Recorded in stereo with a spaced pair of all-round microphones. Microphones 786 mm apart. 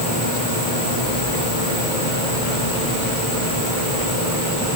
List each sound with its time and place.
Only background noise.